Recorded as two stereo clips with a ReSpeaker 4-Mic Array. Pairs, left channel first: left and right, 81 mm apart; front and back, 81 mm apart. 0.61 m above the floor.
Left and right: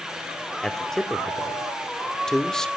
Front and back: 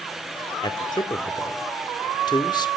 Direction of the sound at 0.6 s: 5° left.